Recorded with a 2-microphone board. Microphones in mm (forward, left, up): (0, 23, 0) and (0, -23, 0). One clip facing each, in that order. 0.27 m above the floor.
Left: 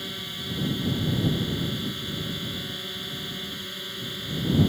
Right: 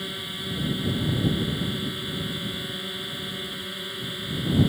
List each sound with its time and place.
0.0 s a drone: 10° right (ahead or behind)